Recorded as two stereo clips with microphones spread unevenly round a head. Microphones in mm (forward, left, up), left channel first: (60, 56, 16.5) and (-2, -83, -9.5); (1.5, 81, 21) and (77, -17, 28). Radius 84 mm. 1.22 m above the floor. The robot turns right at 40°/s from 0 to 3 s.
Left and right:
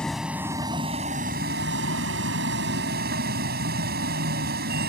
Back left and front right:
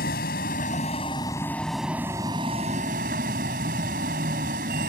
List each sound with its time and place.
0.0 s a vehicle: 150° left; by 4.9 s 90° right